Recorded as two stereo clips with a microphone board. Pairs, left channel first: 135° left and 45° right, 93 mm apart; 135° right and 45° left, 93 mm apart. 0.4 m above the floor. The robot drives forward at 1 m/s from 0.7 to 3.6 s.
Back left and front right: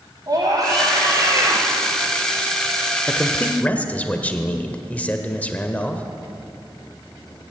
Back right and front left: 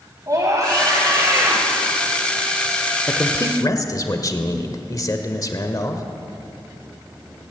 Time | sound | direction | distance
0.3 | a scream | 5° right | 3 m
3.1 | a man speaking | 140° right | 1.3 m